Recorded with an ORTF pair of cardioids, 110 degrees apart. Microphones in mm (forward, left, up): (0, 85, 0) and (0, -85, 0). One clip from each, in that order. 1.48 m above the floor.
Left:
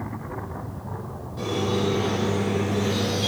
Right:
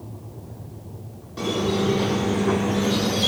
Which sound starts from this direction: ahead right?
A squeak, at 1.4 s.